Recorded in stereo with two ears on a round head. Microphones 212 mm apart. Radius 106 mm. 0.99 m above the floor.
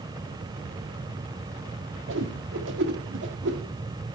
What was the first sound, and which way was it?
A whoosh, 55° right (ahead or behind).